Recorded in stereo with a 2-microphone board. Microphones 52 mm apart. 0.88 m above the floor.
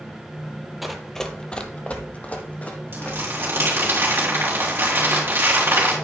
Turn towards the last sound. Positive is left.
turn(degrees=-45)  # may be behind; listen again after turning